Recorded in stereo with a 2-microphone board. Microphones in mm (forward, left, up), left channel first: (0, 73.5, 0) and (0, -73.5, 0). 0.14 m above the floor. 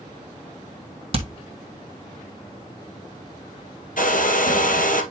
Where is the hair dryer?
70° left (ahead or behind), 2.0 m.